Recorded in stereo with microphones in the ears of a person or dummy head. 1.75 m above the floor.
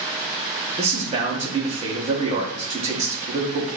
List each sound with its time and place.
0.8 s a man speaking: 30° right (ahead or behind), 1.0 m